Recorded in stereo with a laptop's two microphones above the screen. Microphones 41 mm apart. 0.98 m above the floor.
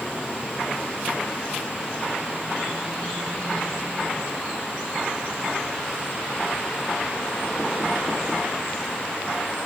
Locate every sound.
Only background noise.